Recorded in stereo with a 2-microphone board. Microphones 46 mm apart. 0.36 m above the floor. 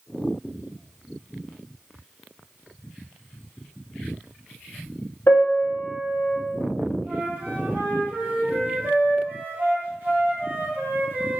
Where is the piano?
60° left (ahead or behind), 1.0 m.